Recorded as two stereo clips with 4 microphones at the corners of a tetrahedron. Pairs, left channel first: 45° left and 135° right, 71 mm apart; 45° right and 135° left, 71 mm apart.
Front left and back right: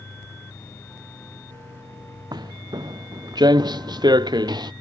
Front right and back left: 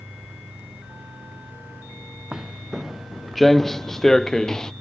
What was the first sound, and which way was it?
Footsteps, 145° right.